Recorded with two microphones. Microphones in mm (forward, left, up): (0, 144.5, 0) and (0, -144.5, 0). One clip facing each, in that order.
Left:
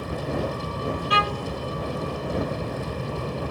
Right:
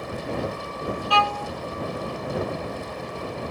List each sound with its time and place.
0.0 s a vehicle: 40° left (ahead or behind)
1.1 s a violin: 20° left (ahead or behind)